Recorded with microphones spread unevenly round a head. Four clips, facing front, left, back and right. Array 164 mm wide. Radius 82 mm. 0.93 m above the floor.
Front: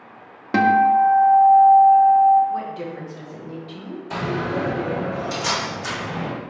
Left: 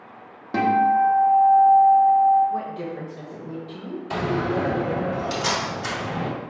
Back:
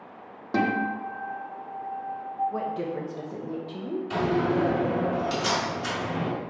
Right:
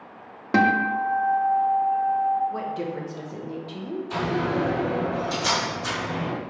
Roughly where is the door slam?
Left.